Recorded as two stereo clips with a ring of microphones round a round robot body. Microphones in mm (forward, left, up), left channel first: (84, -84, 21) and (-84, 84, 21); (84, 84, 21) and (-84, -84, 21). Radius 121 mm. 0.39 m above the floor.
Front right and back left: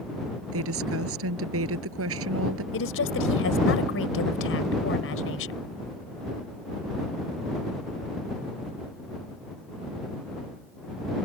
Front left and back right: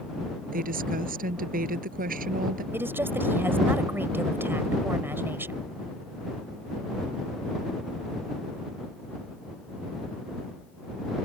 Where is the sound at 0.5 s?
170° left.